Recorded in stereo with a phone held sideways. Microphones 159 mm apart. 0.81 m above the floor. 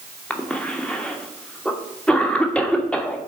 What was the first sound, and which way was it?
A cough, 5° left (ahead or behind).